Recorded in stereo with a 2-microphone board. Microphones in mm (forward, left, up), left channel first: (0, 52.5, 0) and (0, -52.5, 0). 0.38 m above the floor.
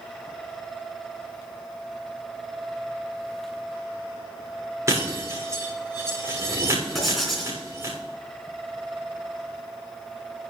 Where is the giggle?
No giggle in this recording.